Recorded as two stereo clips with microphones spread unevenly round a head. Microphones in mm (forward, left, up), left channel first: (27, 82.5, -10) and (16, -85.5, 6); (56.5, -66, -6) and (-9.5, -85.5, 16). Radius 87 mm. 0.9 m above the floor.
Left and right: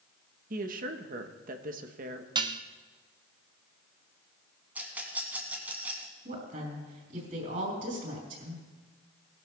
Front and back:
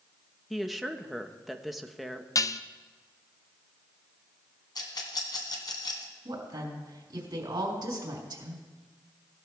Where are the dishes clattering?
25° right, 0.6 m.